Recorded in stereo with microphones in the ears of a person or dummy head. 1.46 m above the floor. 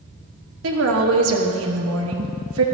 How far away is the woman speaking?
About 1.2 m.